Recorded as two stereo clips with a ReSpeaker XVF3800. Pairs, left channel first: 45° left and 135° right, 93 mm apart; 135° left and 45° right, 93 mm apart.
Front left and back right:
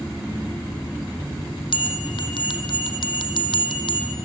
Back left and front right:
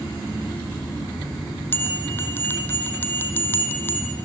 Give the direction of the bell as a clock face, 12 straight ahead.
10 o'clock.